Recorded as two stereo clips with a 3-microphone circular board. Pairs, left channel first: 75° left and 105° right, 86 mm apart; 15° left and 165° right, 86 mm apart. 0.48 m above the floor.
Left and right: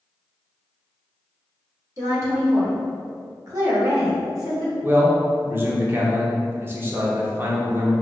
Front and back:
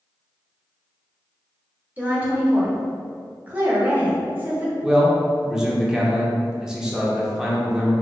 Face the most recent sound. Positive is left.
turn(degrees=-95)